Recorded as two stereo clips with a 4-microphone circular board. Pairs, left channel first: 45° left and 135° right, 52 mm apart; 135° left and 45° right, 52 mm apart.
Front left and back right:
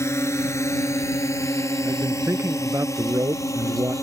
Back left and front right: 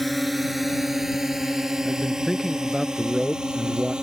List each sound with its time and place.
0.0 s a drone: 45° left; by 4.0 s 30° left
1.9 s a man speaking: 135° right